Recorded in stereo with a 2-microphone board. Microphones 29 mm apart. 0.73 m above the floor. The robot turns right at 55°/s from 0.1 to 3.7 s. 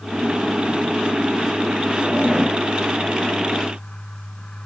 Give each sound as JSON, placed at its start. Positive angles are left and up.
{"t": 2.0, "sound": "a zipper", "azimuth_deg": -65, "distance_m": 2.5}